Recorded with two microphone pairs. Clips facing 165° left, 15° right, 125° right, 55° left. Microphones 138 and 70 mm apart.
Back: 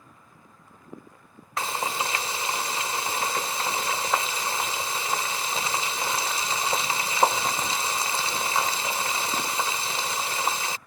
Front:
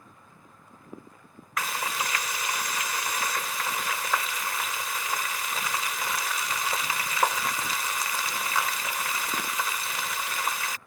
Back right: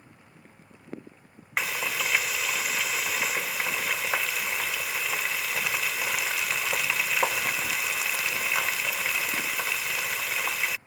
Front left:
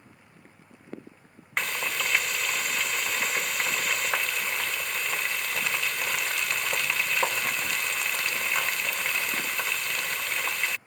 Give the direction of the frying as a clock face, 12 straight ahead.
7 o'clock.